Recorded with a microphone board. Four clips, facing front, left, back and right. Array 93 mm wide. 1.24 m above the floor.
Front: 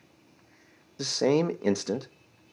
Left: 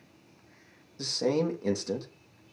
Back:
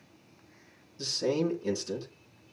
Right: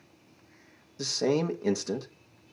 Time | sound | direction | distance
1.0 | a man speaking | 5° right | 1.3 m